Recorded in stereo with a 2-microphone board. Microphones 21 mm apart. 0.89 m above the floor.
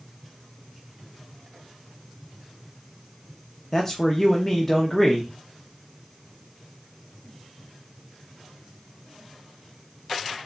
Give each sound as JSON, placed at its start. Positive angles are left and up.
{"t": 3.7, "sound": "a man speaking", "side_deg": 10, "distance_m": 0.8}